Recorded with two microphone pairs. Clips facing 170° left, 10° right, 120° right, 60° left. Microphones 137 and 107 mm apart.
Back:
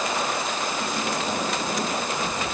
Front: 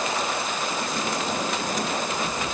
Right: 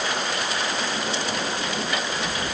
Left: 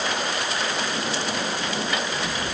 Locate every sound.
Only background noise.